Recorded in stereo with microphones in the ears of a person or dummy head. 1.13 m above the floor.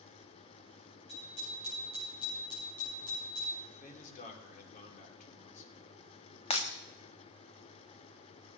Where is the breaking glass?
35° left (ahead or behind), 1.2 m.